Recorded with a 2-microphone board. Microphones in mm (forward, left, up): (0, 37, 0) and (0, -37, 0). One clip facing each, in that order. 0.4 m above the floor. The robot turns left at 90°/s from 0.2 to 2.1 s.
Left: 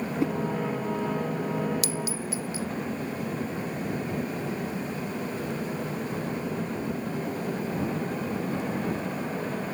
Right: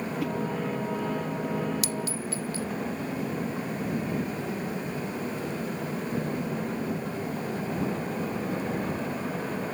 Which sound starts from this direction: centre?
A clink, at 1.8 s.